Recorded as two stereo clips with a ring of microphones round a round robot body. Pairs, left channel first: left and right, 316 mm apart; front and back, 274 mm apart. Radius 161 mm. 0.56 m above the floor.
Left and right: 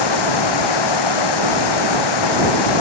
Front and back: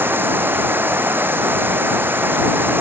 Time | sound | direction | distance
0.0 | running water | 95° left | ?